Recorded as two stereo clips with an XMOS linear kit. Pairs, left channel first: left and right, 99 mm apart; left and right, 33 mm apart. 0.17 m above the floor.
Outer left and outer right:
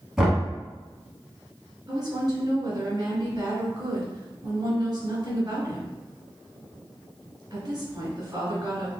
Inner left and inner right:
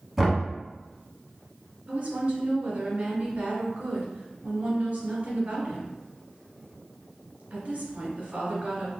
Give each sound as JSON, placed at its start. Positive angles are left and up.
{"t": 0.2, "sound": "knocking", "side_deg": -5, "distance_m": 1.3}
{"t": 1.9, "sound": "a woman speaking", "side_deg": -40, "distance_m": 1.4}